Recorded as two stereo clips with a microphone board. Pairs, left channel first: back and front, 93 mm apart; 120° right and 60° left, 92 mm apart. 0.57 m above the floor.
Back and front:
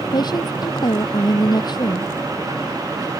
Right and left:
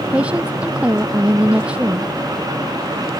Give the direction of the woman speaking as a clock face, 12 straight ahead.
7 o'clock.